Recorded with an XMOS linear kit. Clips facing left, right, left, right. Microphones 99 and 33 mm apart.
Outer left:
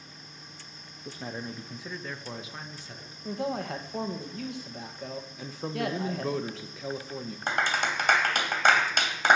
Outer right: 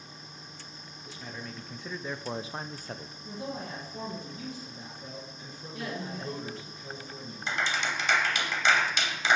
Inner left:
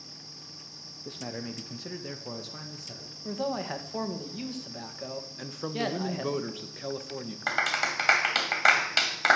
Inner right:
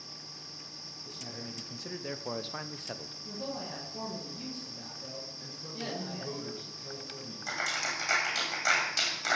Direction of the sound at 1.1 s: 40° left (ahead or behind).